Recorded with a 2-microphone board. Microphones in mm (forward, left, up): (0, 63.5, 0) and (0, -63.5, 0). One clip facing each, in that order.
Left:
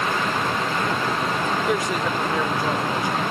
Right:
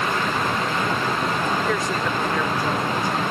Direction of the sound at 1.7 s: 15° left (ahead or behind).